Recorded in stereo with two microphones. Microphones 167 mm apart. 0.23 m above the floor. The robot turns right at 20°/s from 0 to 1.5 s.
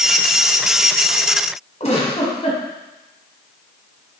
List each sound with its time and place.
1.8 s a giggle: 40° left (ahead or behind), 1.4 m